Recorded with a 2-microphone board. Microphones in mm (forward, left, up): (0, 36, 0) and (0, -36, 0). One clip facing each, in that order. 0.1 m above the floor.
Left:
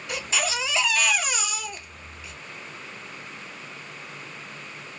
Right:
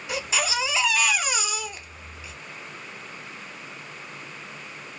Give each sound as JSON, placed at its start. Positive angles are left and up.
{"t": 0.1, "sound": "a baby crying", "side_deg": -10, "distance_m": 1.1}